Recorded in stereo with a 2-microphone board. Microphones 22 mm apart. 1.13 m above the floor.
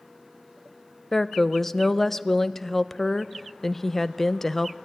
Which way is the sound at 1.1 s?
15° left (ahead or behind).